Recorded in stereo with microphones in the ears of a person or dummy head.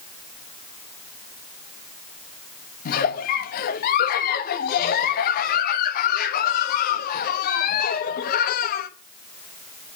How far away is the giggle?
About 1.4 m.